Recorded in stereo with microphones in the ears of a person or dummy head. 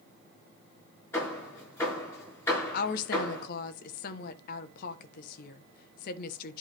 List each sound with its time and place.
1.1 s hammering: 15° left (ahead or behind), 7 m
2.7 s a woman speaking: 50° left (ahead or behind), 1.2 m